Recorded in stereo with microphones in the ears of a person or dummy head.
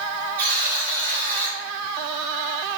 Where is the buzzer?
30° right (ahead or behind), 1.0 m.